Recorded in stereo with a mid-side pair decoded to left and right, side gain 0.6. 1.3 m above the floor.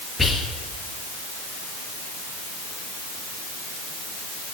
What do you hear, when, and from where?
0.2 s whispering: 15° left, 1.3 m